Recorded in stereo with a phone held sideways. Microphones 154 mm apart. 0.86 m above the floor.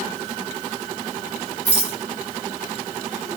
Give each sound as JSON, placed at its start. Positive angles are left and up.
{"t": 1.6, "sound": "a rattle", "side_deg": 45, "distance_m": 4.5}